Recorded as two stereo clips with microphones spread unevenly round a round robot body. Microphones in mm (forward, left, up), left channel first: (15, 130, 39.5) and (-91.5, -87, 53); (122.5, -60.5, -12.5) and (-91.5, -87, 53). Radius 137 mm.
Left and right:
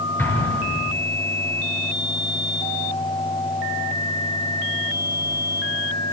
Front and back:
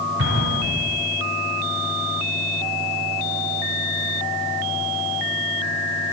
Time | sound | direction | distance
0.2 | an explosion | 145° left | 7.5 m